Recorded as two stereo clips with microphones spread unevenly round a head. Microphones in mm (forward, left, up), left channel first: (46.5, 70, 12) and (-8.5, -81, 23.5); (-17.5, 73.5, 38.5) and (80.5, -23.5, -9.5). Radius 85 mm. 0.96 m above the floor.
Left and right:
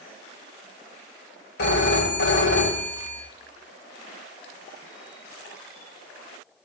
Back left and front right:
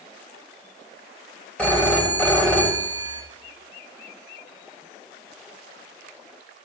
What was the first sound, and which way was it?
A phone ringing, 55° left.